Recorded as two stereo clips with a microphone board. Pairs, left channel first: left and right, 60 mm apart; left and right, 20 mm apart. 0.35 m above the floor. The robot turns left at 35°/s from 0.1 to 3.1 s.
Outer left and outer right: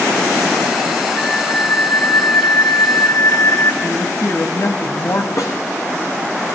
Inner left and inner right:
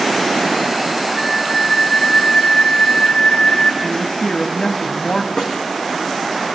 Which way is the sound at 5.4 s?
50° left (ahead or behind).